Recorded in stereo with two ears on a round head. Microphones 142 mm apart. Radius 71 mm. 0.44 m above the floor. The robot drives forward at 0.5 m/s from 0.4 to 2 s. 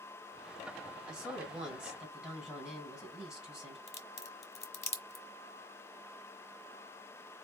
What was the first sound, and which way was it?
A woman speaking, 5° right (ahead or behind).